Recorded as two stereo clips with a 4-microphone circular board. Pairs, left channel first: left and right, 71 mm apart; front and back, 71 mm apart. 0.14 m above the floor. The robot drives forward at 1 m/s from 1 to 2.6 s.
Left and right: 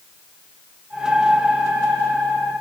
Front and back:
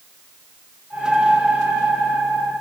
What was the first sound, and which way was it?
Only background noise.